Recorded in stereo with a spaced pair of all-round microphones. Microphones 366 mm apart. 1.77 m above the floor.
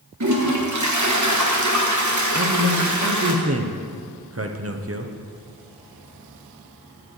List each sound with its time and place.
0.2 s a toilet flushing: 50° right (ahead or behind), 1.2 m
2.3 s a man speaking: 40° right (ahead or behind), 0.8 m